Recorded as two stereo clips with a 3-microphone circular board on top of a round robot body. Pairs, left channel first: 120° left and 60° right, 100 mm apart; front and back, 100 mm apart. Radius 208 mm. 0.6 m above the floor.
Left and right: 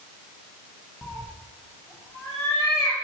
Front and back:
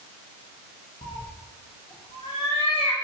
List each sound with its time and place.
1.0 s a cat meowing: 50° left, 0.6 m